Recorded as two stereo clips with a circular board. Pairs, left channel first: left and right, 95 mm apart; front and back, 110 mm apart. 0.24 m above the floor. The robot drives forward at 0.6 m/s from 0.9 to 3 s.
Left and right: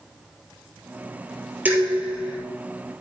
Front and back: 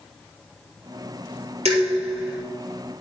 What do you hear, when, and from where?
1.6 s dishes clattering: 165° right, 4 m